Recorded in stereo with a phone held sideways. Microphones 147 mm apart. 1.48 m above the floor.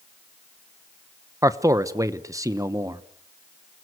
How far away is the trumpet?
No trumpet in this recording.